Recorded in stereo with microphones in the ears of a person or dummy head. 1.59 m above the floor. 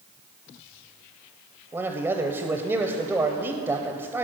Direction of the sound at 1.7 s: 15° right (ahead or behind).